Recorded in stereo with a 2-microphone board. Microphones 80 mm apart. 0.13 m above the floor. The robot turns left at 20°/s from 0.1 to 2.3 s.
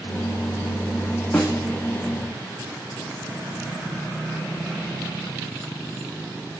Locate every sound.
1.3 s a snare drum: 5° left (ahead or behind), 2 m; by 1.6 s 10° left (ahead or behind), 2 m